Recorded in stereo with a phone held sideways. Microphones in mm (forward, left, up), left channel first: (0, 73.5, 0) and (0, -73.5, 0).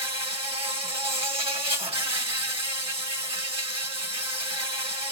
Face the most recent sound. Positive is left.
turn(degrees=-40)  # may be behind; listen again after turning